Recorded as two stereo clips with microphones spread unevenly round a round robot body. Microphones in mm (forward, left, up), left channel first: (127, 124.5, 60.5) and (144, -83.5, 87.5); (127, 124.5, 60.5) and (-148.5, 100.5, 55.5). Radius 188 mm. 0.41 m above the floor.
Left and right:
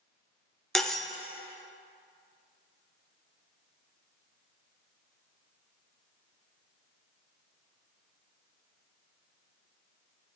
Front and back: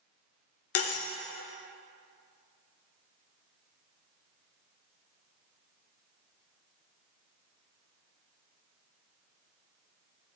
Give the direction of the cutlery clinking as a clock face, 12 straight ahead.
12 o'clock.